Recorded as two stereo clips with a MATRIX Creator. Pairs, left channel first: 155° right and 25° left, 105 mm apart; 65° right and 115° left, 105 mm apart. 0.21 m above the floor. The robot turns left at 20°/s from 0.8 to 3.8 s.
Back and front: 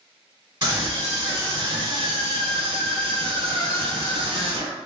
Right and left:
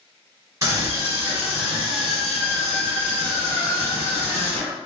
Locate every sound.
0.6 s a scream: 75° left, 1.6 m; by 4.8 s 15° left, 1.6 m